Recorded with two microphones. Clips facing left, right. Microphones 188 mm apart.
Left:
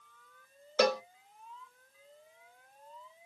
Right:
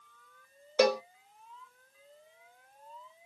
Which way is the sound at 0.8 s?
10° right (ahead or behind).